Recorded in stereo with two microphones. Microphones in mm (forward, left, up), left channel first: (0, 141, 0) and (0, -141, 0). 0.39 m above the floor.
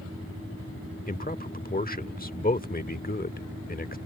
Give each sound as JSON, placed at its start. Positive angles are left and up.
{"t": 1.1, "sound": "a man speaking", "side_deg": 30}